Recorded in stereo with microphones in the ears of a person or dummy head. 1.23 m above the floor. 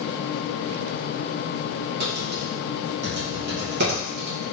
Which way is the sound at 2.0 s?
55° right (ahead or behind).